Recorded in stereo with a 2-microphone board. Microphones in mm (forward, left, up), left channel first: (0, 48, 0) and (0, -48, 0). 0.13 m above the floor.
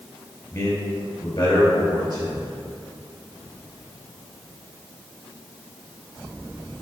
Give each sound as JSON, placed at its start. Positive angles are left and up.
{"t": 0.5, "sound": "a man speaking", "side_deg": 40, "distance_m": 2.5}